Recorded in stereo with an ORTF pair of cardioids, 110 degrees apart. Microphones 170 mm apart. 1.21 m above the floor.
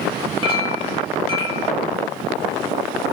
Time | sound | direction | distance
0.4 | a clink | 30° right | 2.5 m